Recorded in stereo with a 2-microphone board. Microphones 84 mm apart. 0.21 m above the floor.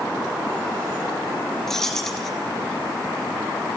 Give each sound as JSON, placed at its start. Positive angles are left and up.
{"t": 1.7, "sound": "keys jangling", "side_deg": 5, "distance_m": 3.0}